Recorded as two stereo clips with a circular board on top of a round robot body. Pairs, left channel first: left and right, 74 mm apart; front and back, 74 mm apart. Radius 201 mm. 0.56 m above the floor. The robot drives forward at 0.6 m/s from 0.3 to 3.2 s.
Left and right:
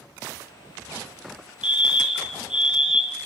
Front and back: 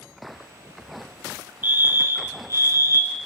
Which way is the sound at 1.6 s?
150° right.